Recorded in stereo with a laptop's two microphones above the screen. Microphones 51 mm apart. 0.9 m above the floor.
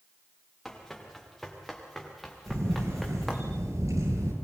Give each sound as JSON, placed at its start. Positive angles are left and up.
{"t": 0.7, "sound": "running footsteps", "side_deg": 5, "distance_m": 8.0}
{"t": 2.5, "sound": "a camera shutter", "side_deg": -75, "distance_m": 9.0}